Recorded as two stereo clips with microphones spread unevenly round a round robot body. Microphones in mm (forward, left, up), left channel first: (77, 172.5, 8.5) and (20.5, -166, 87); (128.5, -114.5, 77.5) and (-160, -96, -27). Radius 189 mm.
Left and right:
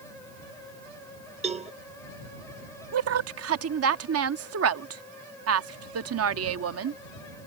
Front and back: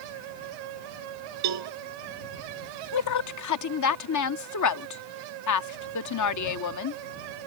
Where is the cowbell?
175° right.